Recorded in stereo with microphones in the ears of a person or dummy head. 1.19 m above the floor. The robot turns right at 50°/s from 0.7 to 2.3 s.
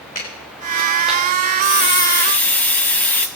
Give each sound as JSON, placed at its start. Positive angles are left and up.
{"t": 0.1, "sound": "a clap", "side_deg": 45, "distance_m": 5.0}
{"t": 1.6, "sound": "a hiss", "azimuth_deg": 135, "distance_m": 0.7}